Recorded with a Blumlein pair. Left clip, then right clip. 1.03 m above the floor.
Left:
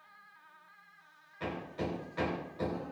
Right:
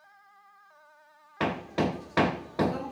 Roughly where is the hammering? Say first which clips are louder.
Right 9 dB; ahead right.